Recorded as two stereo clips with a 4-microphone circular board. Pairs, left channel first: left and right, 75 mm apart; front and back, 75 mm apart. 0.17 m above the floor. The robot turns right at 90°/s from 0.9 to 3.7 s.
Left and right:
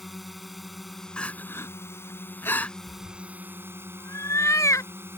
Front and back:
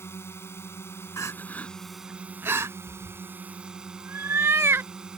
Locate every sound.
0.0 s a drone: straight ahead; by 5.2 s 110° right
1.2 s crying: 20° left; by 2.8 s 160° left
2.9 s a cat meowing: 55° left; by 4.9 s 130° left